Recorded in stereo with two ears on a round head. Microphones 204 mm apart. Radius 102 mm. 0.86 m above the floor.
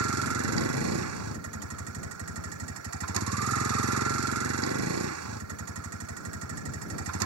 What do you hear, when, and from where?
0.0 s a vehicle: 75° right (ahead or behind)